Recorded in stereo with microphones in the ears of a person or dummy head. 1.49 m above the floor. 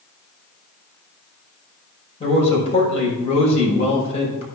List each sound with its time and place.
2.2 s a man speaking: 35° left (ahead or behind), 5 m